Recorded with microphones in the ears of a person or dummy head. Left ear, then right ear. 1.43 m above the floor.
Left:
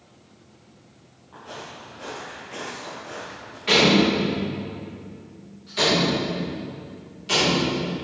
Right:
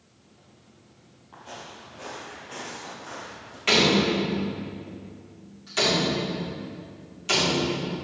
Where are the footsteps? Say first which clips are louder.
Left 3 dB; 5° right (ahead or behind), 2.0 m; by 3.6 s 35° right (ahead or behind), 2.5 m.